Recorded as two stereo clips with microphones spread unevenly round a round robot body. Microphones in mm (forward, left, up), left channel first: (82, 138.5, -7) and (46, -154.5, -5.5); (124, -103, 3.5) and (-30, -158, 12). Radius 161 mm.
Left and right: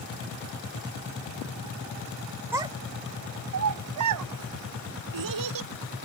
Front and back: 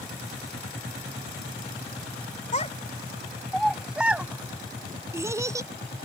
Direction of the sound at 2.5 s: 15° right.